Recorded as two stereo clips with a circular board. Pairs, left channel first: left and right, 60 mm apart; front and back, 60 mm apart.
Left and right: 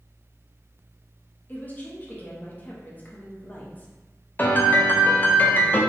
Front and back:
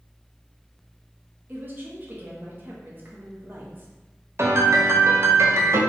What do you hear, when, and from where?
1.5 s a woman speaking: 135° left, 1.0 m
4.4 s a piano: 145° left, 0.6 m